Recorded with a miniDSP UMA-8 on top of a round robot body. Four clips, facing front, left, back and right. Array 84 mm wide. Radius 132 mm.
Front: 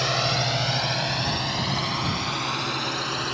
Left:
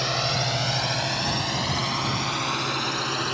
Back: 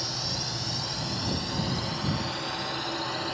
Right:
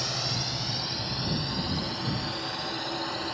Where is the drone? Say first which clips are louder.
Left 8 dB, front 11 dB; 25° left; by 3.3 s 60° left.